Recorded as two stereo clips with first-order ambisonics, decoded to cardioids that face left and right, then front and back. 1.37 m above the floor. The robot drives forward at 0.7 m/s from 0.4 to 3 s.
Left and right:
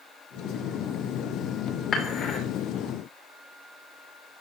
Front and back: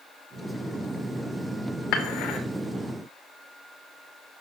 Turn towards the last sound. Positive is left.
turn(degrees=45)